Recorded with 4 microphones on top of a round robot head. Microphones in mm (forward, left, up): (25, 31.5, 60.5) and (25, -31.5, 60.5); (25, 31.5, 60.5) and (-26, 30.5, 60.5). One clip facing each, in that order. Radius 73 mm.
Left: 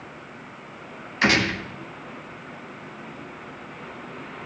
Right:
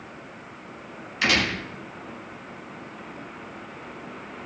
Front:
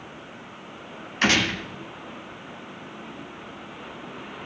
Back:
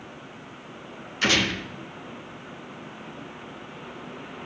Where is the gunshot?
40° left, 4.5 m.